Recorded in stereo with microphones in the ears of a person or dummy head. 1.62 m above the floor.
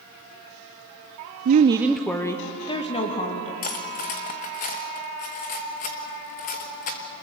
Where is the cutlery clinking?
40° left (ahead or behind), 1.1 m.